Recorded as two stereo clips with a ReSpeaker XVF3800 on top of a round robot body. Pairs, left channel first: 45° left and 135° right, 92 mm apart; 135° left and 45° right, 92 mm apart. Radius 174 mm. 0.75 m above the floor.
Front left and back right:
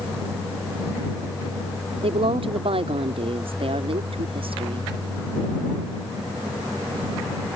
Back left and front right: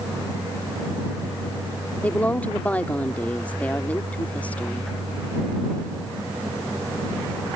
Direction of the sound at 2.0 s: 150° right.